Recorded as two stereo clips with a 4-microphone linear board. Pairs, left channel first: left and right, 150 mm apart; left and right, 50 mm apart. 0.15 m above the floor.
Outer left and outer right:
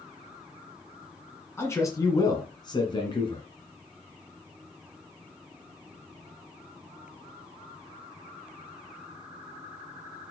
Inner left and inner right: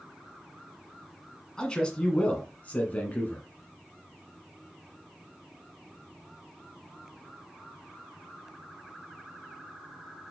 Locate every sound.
1.6 s a man speaking: 15° left (ahead or behind), 1.4 m; by 3.5 s 35° left (ahead or behind), 1.7 m